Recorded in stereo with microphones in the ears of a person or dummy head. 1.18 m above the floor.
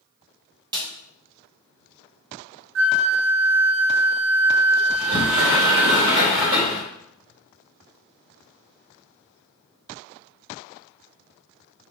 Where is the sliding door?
50° right (ahead or behind), 1.8 m.